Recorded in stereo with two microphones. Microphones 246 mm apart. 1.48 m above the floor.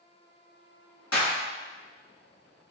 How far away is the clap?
About 2.5 m.